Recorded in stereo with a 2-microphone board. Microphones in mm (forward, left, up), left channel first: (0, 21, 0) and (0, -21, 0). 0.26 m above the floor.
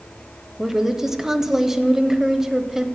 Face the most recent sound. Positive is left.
turn(degrees=-10)  # may be behind; listen again after turning